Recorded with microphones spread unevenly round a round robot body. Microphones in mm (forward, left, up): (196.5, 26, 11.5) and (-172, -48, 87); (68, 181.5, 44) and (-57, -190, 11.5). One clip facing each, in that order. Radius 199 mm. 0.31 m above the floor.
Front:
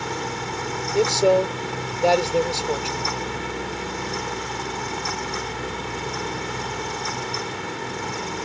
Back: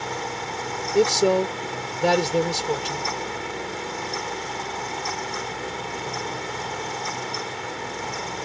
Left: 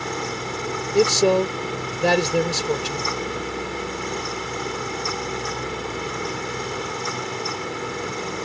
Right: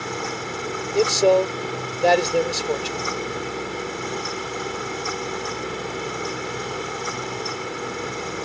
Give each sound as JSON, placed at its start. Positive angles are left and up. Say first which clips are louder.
{"t": 0.9, "sound": "a man speaking", "louder": "even, even", "azimuth_deg": 130}